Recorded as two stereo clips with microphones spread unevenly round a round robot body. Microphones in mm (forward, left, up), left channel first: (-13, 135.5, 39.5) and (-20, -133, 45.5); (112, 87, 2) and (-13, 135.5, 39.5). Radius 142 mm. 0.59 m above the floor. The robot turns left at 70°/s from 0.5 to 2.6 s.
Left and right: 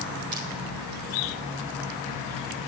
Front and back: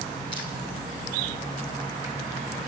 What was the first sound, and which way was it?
Crushing, 80° right.